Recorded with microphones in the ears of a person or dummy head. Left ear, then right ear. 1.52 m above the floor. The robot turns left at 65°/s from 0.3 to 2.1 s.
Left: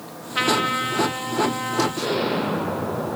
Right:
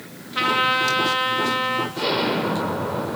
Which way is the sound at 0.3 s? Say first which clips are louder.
Right 2 dB; 10° left.